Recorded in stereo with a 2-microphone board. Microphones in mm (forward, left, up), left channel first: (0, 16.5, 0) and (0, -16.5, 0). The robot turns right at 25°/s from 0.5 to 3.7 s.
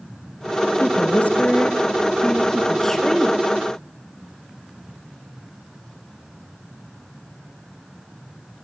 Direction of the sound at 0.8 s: 110° left.